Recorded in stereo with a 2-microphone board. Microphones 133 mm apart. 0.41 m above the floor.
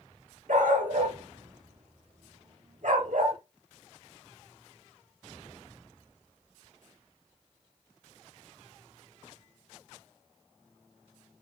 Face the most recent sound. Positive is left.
turn(degrees=-70)  # may be behind; listen again after turning